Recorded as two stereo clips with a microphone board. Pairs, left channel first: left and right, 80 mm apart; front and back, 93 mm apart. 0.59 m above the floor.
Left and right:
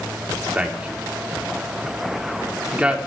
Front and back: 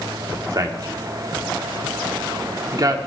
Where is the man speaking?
160° right, 1.5 m.